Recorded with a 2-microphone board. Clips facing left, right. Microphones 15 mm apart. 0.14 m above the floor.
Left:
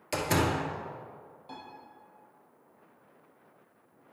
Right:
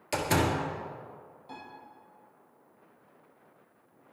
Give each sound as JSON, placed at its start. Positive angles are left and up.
{"t": 0.1, "sound": "a door slam", "side_deg": -5, "distance_m": 1.5}
{"t": 1.5, "sound": "a piano", "side_deg": 20, "distance_m": 3.0}